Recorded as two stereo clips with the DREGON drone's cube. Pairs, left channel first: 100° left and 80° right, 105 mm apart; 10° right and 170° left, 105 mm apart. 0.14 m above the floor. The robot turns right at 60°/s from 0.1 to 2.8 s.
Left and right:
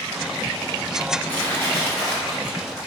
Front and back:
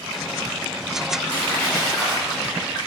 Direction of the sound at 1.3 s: 40° left.